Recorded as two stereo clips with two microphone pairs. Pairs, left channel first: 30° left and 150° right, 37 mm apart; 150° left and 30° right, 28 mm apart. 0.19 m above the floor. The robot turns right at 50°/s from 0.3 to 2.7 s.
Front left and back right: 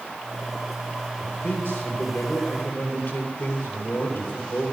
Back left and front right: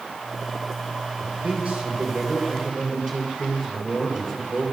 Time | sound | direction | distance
1.2 | a man speaking | straight ahead | 4 m